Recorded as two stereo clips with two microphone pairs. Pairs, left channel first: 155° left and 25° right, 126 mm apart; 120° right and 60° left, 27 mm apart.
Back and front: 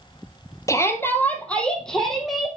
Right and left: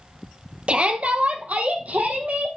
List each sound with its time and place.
0.7 s a shout: 90° left, 2.5 m; by 2.5 s 60° left, 4.5 m